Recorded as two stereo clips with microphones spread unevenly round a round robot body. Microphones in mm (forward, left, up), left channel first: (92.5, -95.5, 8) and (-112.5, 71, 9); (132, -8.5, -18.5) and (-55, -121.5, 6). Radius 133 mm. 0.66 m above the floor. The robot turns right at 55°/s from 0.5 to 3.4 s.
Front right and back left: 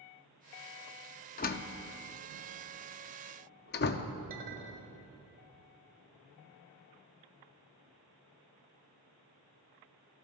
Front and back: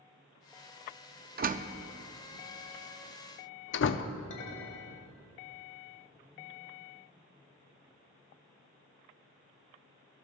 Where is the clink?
80° left, 1.6 m.